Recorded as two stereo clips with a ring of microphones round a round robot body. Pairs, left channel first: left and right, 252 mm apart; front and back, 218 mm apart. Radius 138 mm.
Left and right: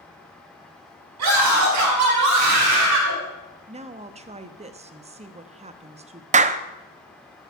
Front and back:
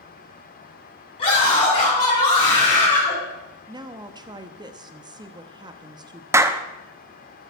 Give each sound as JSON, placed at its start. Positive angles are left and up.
{"t": 1.2, "sound": "a scream", "azimuth_deg": -70, "distance_m": 5.5}
{"t": 3.7, "sound": "a woman speaking", "azimuth_deg": -130, "distance_m": 0.7}
{"t": 6.3, "sound": "a clap", "azimuth_deg": -115, "distance_m": 0.6}